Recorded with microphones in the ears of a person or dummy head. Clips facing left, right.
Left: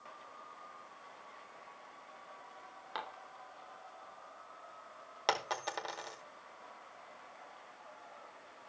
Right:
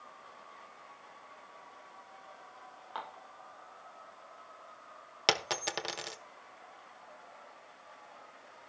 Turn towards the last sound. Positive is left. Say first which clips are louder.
# right 2 dB
turn(degrees=-30)  # may be behind; listen again after turning